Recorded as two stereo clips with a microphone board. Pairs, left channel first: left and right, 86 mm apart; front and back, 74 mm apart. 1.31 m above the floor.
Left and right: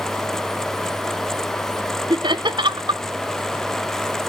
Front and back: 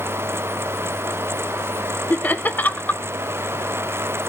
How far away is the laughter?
About 0.6 m.